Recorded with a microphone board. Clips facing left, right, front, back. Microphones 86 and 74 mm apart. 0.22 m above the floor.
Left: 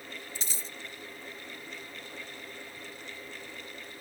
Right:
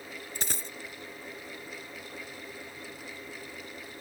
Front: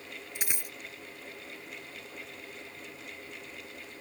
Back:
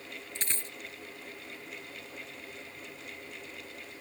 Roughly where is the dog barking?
I don't hear a dog barking.